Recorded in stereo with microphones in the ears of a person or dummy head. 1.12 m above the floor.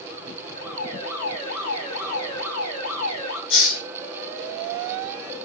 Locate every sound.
0.6 s an alarm: 80° left, 4.5 m
3.5 s a hiss: 65° left (ahead or behind), 1.6 m